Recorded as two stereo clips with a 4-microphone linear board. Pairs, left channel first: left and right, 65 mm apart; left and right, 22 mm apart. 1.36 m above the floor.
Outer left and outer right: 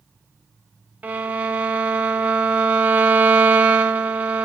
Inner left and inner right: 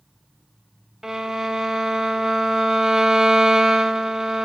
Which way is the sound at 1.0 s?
25° right (ahead or behind).